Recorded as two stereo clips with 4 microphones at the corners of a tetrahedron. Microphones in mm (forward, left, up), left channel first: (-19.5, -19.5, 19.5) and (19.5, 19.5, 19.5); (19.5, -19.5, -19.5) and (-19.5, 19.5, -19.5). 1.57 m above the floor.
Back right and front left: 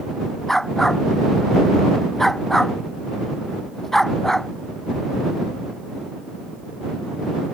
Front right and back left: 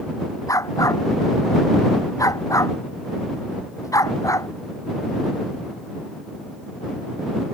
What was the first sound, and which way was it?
A dog barking, 50° right.